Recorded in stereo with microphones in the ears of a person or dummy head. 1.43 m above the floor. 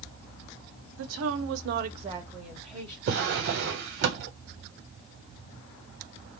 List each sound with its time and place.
1.0 s a woman speaking: 65° right (ahead or behind), 0.8 m; by 3.0 s 5° left (ahead or behind), 1.1 m
3.1 s a drawer: 50° right (ahead or behind), 0.8 m